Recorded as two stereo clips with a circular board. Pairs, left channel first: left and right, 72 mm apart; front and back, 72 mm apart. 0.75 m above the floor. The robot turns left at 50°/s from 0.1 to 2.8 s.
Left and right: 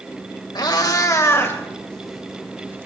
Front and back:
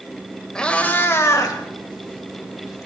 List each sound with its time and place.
0.6 s a cat meowing: 80° left, 1.8 m; by 2.9 s 35° right, 1.8 m